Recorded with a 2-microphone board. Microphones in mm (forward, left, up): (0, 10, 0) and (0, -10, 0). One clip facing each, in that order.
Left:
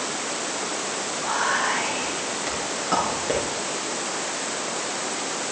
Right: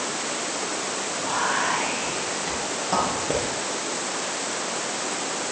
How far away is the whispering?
About 6.5 m.